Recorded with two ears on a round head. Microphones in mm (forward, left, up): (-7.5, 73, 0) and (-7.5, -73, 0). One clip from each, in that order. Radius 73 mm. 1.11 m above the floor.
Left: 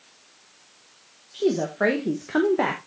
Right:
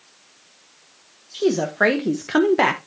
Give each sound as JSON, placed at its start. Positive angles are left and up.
{"t": 1.3, "sound": "a woman speaking", "side_deg": -25, "distance_m": 1.1}